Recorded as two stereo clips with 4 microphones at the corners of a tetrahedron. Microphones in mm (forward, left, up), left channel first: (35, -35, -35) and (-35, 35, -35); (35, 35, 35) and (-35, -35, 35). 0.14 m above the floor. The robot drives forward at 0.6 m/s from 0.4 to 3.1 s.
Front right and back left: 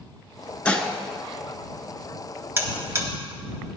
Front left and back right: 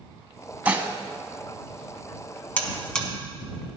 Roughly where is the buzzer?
Left.